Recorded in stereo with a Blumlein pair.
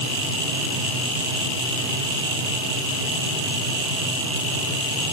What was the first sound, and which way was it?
Only background noise.